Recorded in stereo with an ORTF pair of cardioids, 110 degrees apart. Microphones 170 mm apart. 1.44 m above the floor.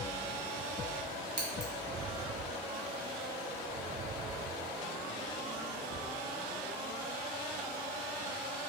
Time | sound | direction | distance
1.4 | scissors | 25° right | 1.6 m